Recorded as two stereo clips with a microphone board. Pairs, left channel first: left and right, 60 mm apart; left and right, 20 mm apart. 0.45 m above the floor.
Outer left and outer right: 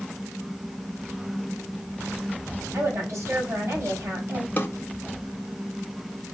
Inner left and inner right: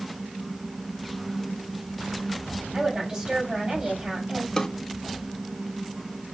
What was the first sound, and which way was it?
A woman speaking, 50° right (ahead or behind).